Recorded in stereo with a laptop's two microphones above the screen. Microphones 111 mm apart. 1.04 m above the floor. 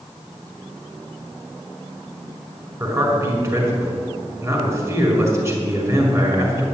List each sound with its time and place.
2.8 s a man speaking: 30° right (ahead or behind), 5.5 m